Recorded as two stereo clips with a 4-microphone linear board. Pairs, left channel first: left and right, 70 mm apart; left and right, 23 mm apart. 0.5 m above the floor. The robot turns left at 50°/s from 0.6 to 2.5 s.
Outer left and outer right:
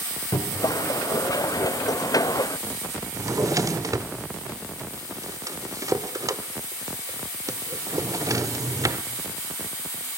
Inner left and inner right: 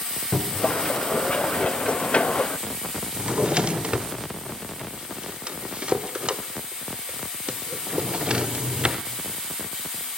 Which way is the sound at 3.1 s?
50° right (ahead or behind).